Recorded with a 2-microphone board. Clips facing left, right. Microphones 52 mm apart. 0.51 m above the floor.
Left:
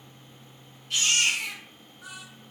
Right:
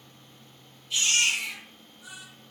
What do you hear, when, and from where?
0.9 s a baby crying: 60° left (ahead or behind), 3.5 m